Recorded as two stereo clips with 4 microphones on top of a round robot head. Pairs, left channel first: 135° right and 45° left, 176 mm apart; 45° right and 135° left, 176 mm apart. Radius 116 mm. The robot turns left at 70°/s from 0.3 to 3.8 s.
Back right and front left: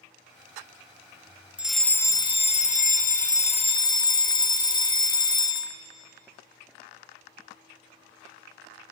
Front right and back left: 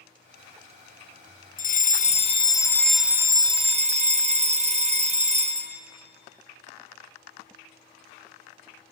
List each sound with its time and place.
1.6 s a fire alarm: 40° right, 1.9 m; by 5.8 s 165° left, 1.9 m